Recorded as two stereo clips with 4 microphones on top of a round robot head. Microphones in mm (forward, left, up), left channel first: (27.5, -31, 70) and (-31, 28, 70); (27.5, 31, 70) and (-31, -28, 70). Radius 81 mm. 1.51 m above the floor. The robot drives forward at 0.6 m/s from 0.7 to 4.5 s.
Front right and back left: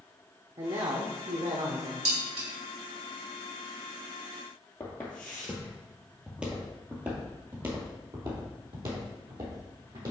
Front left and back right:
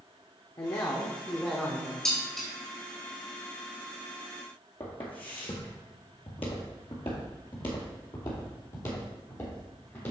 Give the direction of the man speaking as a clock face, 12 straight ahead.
9 o'clock.